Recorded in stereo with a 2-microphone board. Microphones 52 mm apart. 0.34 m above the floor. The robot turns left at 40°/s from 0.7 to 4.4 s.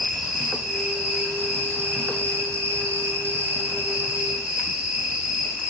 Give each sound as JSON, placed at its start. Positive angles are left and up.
{"t": 0.0, "sound": "an insect", "azimuth_deg": -10, "distance_m": 0.9}